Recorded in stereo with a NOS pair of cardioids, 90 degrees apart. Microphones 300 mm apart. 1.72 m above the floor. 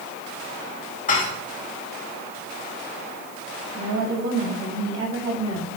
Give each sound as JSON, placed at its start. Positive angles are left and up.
{"t": 1.1, "sound": "dishes clattering", "azimuth_deg": 30, "distance_m": 2.5}
{"t": 3.7, "sound": "a woman speaking", "azimuth_deg": -55, "distance_m": 4.0}